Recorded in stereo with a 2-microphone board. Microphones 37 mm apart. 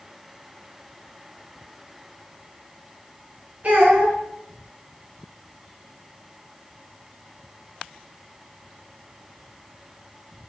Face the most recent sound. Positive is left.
turn(degrees=-45)  # may be behind; listen again after turning